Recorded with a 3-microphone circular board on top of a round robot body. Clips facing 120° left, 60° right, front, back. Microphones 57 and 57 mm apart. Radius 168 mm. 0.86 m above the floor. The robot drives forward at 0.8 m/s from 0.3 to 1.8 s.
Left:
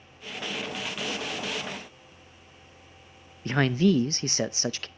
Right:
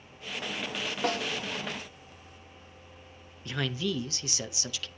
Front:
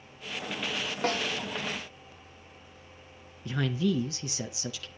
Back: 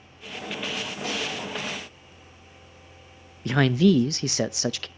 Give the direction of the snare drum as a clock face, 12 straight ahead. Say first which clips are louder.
Right 7 dB, front 2 dB; 1 o'clock.